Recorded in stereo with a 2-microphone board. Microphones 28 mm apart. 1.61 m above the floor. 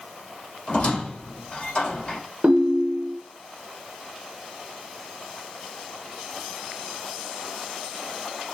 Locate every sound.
0.7 s a squeak: 55° left (ahead or behind), 2.0 m
2.4 s a ringtone: 45° right (ahead or behind), 0.6 m